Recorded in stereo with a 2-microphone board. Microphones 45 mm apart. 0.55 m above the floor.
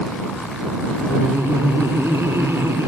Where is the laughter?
80° right.